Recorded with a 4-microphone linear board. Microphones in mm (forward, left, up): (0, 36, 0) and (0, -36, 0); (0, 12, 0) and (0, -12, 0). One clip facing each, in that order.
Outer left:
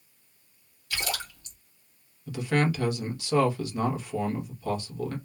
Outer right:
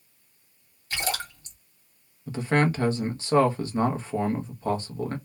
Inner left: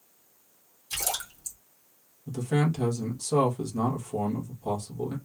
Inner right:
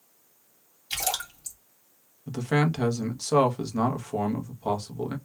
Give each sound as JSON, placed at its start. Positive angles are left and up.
{"t": 0.9, "sound": "a splash", "side_deg": -35, "distance_m": 1.3}
{"t": 2.3, "sound": "a man speaking", "side_deg": -35, "distance_m": 0.7}